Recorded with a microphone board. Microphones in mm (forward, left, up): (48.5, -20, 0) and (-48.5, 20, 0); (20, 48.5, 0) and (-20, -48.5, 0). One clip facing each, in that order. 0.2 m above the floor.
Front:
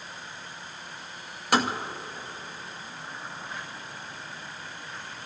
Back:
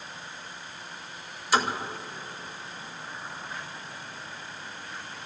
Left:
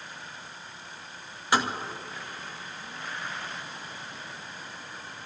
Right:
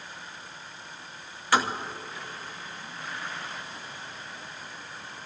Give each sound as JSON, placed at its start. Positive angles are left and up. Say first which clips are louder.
{"t": 1.5, "sound": "tapping", "louder": "front 1 dB, right 1 dB", "azimuth_deg": 0, "distance_m": 2.5}